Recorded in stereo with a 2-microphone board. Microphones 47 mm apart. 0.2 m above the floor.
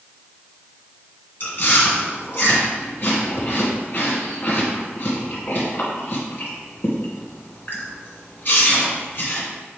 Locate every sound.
1.4 s chewing: 50° left (ahead or behind), 2 m